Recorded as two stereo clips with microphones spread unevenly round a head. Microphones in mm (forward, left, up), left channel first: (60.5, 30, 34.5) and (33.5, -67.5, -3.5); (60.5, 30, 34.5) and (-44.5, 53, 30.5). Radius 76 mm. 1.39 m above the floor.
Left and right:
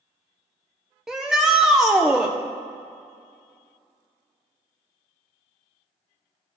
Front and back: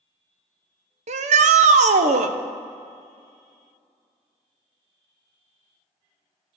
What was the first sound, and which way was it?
A shout, 170° left.